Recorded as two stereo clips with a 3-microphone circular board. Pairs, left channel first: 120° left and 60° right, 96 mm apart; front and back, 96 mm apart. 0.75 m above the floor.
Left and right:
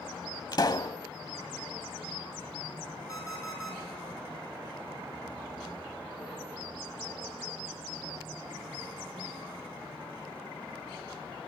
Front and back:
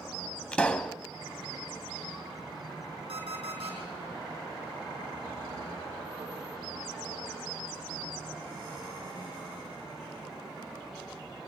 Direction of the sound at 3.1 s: 175° left.